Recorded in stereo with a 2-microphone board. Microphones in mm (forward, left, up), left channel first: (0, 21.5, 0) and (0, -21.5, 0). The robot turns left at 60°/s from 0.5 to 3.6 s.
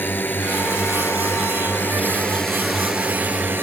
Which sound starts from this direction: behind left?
A drone, at 0.0 s.